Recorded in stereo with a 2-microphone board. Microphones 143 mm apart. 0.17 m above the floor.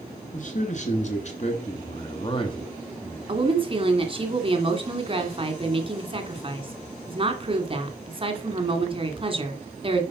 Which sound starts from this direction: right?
A woman speaking, at 3.3 s.